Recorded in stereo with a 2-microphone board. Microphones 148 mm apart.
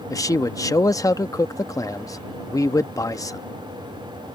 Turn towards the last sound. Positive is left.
turn(degrees=25)  # may be behind; listen again after turning